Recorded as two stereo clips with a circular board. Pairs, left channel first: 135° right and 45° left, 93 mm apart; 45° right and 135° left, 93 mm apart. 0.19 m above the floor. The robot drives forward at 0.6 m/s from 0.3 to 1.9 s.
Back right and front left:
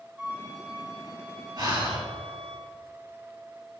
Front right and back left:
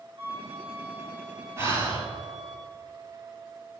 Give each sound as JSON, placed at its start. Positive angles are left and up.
{"t": 0.2, "sound": "a flute", "azimuth_deg": 115, "distance_m": 3.5}
{"t": 1.6, "sound": "breathing", "azimuth_deg": 75, "distance_m": 3.5}